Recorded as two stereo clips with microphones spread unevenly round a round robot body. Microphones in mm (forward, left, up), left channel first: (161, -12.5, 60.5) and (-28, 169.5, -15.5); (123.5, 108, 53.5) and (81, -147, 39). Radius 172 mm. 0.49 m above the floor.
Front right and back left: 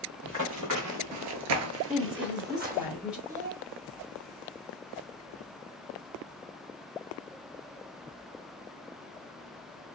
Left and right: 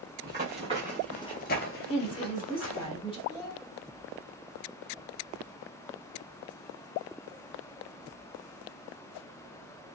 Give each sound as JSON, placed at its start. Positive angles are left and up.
{"t": 0.2, "sound": "running footsteps", "azimuth_deg": -160, "distance_m": 0.9}
{"t": 1.9, "sound": "a woman speaking", "azimuth_deg": 120, "distance_m": 1.3}
{"t": 3.3, "sound": "a child speaking", "azimuth_deg": 100, "distance_m": 1.3}